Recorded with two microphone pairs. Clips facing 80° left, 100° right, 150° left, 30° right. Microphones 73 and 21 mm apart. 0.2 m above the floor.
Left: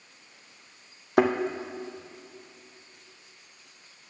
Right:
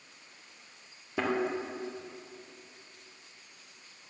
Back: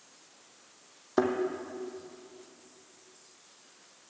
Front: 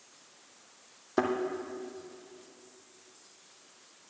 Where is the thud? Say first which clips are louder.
Left 9 dB, back 2 dB; 60° left, 1.4 m.